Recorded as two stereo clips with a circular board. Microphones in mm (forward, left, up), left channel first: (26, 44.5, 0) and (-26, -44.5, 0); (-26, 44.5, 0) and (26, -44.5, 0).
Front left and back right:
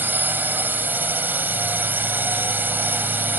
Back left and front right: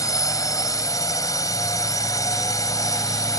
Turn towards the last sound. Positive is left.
turn(degrees=170)